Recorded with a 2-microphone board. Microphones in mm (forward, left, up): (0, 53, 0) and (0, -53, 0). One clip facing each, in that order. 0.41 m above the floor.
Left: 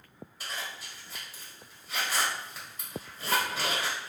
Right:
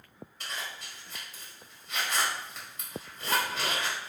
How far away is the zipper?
About 1.9 m.